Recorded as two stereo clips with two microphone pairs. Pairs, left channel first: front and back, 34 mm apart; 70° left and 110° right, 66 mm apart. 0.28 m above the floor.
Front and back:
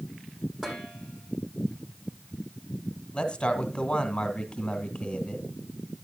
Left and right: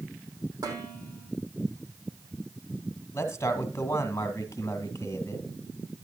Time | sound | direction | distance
0.6 | dishes clattering | 100° right | 8 m
3.1 | a man speaking | 45° left | 1.5 m